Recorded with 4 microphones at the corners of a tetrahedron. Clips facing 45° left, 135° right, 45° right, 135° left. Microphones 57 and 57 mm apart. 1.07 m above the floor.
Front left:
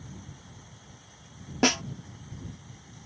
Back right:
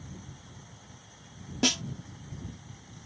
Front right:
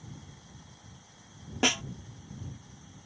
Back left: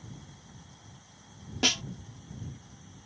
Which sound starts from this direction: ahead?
A snare drum, at 1.6 s.